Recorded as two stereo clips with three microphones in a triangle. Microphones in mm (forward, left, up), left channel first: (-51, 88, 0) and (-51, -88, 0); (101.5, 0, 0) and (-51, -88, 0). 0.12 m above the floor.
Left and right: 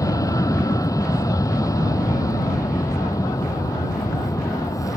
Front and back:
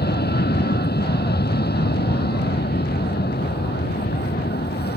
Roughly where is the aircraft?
Ahead.